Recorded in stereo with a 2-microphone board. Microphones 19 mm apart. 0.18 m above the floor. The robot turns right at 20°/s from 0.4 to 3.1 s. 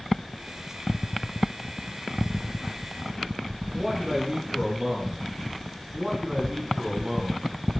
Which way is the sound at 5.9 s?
30° right (ahead or behind).